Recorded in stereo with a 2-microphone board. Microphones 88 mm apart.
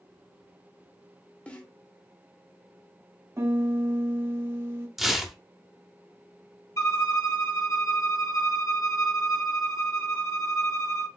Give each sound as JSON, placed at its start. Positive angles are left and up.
{"t": 1.5, "sound": "a snare drum", "side_deg": 15, "distance_m": 0.7}
{"t": 3.4, "sound": "a piano", "side_deg": -30, "distance_m": 0.6}
{"t": 5.0, "sound": "tearing paper", "side_deg": -5, "distance_m": 0.6}
{"t": 6.8, "sound": "a violin", "side_deg": 35, "distance_m": 1.0}